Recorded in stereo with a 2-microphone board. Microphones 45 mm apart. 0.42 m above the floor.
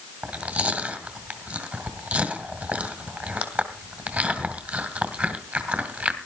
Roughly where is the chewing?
Right.